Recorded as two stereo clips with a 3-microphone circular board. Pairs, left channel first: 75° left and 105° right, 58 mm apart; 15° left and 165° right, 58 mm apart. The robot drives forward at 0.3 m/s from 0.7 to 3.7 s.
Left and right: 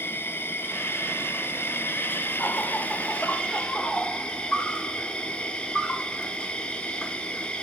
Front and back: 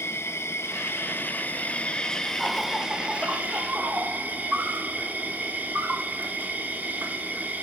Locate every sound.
0.0 s an insect: 35° left, 0.7 m; by 7.6 s 145° left, 0.7 m